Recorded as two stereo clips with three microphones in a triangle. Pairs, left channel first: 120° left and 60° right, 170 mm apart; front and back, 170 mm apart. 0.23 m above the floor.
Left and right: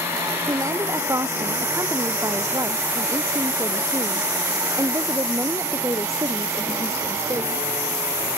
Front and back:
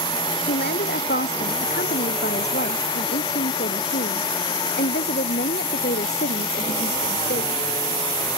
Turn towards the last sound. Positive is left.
turn(degrees=10)